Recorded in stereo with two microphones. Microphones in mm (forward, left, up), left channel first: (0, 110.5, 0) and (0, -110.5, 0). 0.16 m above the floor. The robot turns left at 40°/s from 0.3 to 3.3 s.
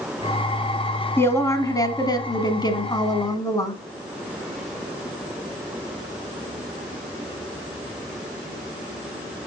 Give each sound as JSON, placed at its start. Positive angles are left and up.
{"t": 1.2, "sound": "a woman speaking", "side_deg": 10, "distance_m": 1.0}